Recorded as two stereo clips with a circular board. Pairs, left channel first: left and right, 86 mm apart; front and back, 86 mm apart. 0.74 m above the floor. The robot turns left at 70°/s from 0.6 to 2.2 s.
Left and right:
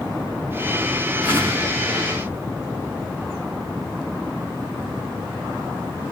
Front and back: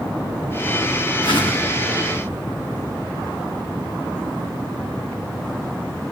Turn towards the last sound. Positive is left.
turn(degrees=-85)